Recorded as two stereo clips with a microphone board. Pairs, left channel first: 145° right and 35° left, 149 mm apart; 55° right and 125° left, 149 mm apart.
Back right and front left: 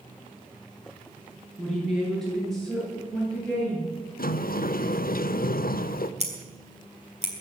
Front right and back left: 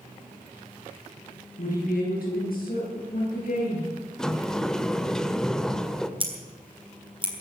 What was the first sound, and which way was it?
A woman speaking, 55° right.